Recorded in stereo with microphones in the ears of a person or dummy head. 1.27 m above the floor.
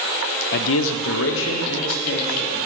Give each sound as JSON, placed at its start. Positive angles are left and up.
{"t": 0.5, "sound": "a man speaking", "side_deg": 50, "distance_m": 0.5}